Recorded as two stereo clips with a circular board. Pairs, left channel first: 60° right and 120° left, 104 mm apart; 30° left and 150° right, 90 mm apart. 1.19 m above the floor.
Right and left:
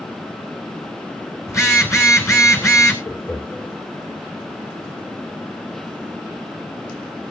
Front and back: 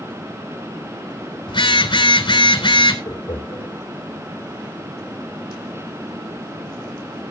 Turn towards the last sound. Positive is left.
turn(degrees=-5)